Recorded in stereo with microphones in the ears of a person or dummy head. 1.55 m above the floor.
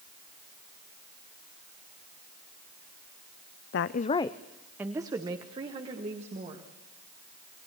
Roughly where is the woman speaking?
Left.